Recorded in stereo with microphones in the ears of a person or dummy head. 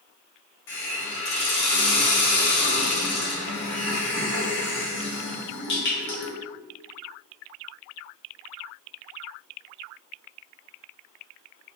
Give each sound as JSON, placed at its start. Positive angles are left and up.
{"t": 0.7, "sound": "a hiss", "side_deg": 50, "distance_m": 1.0}